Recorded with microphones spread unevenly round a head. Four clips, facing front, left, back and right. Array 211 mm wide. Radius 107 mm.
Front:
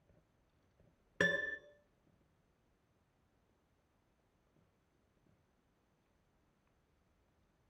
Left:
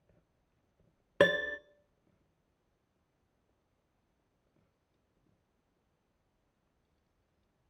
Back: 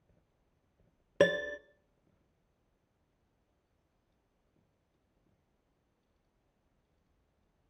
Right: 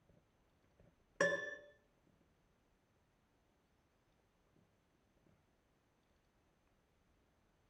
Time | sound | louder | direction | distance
1.2 | a piano | left 10 dB, back 9 dB | 140° left | 0.7 m